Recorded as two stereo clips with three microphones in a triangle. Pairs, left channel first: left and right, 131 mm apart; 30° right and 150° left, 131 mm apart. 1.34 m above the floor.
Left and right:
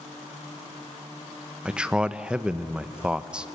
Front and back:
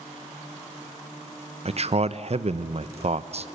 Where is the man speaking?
175° right, 0.8 m.